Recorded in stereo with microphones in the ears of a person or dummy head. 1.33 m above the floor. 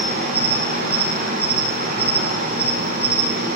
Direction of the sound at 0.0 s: 50° right (ahead or behind).